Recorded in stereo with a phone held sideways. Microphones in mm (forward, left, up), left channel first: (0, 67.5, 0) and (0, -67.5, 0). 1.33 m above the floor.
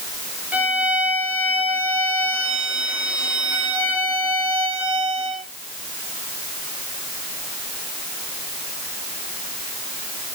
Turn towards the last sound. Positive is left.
turn(degrees=-10)  # may be behind; listen again after turning